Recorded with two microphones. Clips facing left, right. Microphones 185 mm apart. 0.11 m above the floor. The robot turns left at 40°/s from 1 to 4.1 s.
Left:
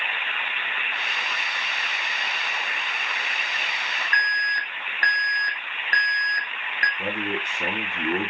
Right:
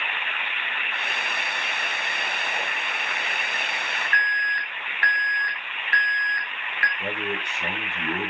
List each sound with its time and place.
4.1 s an alarm: 40° left (ahead or behind), 1.9 m
7.0 s a man speaking: 35° left (ahead or behind), 2 m